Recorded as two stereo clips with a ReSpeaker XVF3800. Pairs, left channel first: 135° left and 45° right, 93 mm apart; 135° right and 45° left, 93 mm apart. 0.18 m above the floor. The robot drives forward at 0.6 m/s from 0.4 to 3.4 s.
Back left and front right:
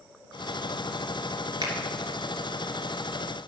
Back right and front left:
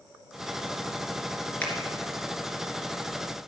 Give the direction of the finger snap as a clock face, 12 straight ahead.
2 o'clock.